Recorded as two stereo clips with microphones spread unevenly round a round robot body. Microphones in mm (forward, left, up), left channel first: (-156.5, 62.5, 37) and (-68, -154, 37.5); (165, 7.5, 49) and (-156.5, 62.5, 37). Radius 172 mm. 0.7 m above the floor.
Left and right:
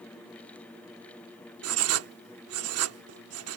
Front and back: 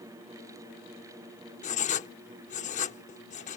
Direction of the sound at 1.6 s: 80° right.